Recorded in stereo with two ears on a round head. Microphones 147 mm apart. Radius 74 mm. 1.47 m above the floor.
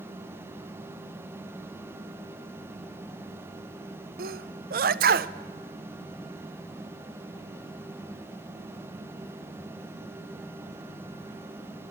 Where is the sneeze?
60° right (ahead or behind), 0.8 m.